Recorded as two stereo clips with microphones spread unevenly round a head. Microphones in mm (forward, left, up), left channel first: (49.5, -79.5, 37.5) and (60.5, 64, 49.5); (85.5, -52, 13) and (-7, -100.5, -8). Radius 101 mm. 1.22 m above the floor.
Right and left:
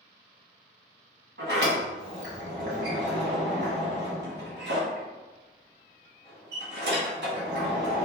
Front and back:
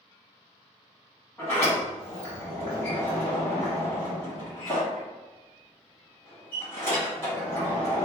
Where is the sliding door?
110° left, 1.3 m.